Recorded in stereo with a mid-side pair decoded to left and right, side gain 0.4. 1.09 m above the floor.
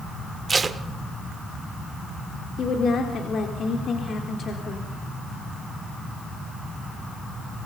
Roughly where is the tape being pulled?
Ahead right.